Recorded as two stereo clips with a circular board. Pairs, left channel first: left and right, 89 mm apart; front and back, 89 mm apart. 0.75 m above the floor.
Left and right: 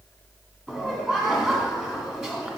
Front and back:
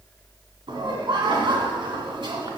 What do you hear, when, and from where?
0.7 s laughter: 170° right, 2.0 m